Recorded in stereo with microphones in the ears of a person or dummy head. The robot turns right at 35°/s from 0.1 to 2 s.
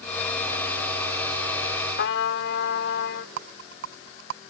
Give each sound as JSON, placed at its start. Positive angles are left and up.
{"t": 2.0, "sound": "a trumpet", "side_deg": 65}
{"t": 3.4, "sound": "a rattle", "side_deg": -60}